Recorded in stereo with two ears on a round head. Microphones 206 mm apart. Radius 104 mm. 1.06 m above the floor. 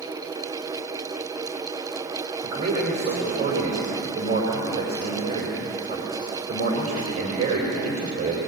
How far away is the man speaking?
About 4.5 m.